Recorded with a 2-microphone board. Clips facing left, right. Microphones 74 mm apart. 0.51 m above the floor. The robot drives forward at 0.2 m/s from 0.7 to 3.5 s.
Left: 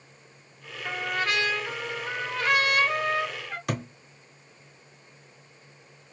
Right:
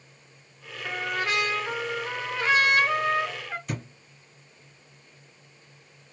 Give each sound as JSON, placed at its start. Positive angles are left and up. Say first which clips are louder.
{"t": 0.8, "sound": "a trumpet", "louder": "even", "side_deg": -15, "distance_m": 1.0}
{"t": 3.7, "sound": "a thud", "louder": "left 7 dB", "side_deg": 80, "distance_m": 0.7}